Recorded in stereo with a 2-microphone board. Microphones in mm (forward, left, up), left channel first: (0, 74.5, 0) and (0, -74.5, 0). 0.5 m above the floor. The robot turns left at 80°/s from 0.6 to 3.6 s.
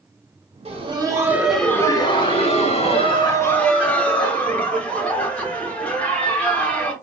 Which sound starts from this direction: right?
Laughter, at 0.7 s.